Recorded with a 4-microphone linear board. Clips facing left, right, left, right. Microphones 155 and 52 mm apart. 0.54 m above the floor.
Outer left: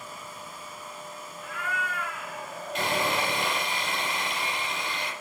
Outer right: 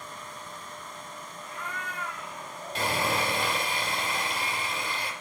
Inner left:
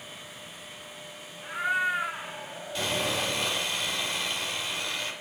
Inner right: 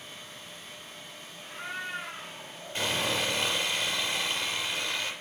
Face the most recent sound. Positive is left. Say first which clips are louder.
# outer left 1 dB, even
turn(degrees=-35)  # may be behind; listen again after turning